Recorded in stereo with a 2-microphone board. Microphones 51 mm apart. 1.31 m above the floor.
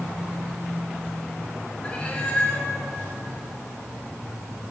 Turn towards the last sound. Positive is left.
turn(degrees=20)  # may be behind; listen again after turning